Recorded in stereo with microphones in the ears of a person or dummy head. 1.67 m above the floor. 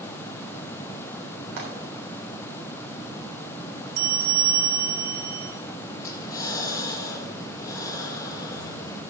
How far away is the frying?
About 3.5 m.